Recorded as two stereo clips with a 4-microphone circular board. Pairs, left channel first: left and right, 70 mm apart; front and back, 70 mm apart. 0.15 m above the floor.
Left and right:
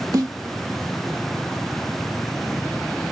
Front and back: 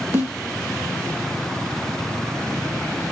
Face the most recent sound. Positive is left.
turn(degrees=-120)